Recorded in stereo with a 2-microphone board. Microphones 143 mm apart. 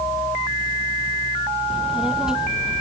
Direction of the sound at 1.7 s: 5° right (ahead or behind).